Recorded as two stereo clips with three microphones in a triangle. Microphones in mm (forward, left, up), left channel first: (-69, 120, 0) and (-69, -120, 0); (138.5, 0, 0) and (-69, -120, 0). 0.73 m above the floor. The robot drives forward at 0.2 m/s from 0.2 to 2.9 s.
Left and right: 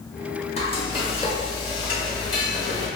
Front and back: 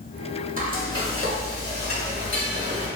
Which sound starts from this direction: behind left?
Frying, at 0.6 s.